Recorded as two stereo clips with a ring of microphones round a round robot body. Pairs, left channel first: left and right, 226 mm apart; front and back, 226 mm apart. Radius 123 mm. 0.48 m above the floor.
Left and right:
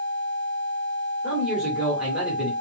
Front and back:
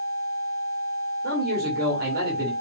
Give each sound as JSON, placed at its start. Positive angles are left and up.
{"t": 1.2, "sound": "a man speaking", "azimuth_deg": -175, "distance_m": 1.7}